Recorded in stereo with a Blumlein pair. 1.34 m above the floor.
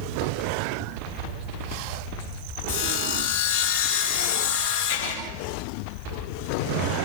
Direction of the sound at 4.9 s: 65° left.